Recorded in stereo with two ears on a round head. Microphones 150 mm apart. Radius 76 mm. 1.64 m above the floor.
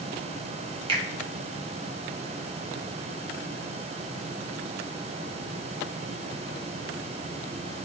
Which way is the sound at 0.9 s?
30° right (ahead or behind).